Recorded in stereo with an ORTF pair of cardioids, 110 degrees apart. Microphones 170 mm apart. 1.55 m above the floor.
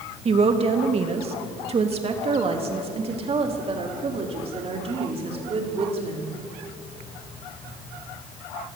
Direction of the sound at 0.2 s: 35° right.